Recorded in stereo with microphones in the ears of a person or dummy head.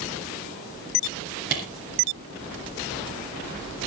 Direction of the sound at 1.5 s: 55° right (ahead or behind).